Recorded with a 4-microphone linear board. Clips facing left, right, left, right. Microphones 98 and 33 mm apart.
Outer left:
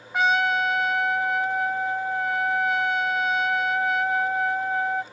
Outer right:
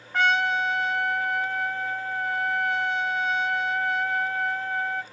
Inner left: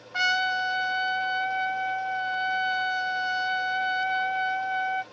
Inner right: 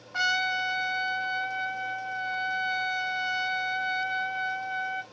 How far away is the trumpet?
About 0.8 m.